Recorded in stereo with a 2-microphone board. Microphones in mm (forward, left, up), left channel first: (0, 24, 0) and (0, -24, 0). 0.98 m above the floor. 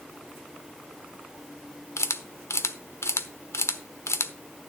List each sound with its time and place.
2.0 s a camera shutter: 70° left (ahead or behind), 1.1 m